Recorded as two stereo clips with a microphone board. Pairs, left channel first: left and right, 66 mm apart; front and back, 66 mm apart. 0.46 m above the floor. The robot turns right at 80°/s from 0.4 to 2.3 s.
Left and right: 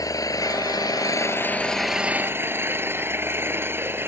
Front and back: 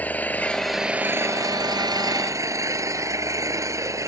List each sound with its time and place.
0.0 s an engine running: 65° left; by 4.1 s 140° right